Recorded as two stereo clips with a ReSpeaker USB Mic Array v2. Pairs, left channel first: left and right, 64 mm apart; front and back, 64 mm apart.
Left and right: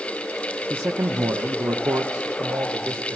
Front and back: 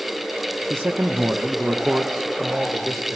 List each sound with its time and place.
0.7 s a man speaking: 140° right, 0.5 m; by 3.2 s 90° right, 2 m